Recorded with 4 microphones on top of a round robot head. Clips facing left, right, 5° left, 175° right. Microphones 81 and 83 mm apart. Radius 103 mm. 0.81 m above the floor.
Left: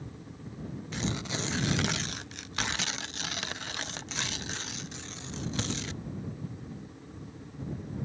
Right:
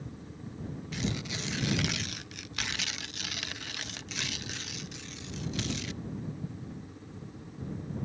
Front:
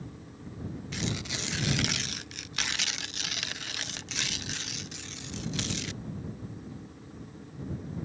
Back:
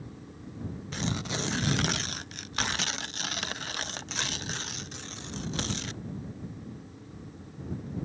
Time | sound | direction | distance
0.9 | tearing paper | 140° left | ?